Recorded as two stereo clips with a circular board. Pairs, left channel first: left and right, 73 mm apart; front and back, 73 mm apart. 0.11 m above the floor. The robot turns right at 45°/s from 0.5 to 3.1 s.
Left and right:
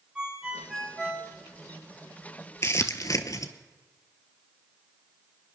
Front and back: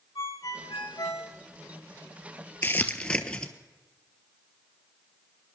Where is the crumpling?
50° left, 1.0 m; by 3.5 s 75° left, 1.0 m.